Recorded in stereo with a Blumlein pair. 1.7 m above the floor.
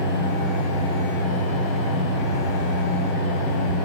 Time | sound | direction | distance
0.0 | a fan | 40° left | 1.0 m